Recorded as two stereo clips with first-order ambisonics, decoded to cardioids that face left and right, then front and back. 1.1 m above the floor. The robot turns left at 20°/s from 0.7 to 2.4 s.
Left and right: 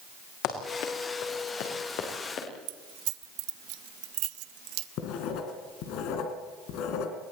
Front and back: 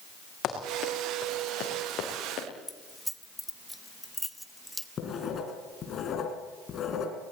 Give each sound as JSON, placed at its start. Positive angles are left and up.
{"t": 0.4, "sound": "running footsteps", "azimuth_deg": 55, "distance_m": 5.5}
{"t": 2.7, "sound": "keys jangling", "azimuth_deg": -85, "distance_m": 0.9}
{"t": 5.0, "sound": "writing", "azimuth_deg": 60, "distance_m": 3.0}